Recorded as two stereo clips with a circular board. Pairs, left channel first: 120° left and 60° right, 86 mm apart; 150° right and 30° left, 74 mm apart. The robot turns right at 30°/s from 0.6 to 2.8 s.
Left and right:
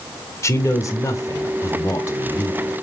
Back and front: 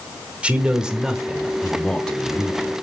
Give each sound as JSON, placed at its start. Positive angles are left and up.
{"t": 0.4, "sound": "a man speaking", "azimuth_deg": 95, "distance_m": 1.1}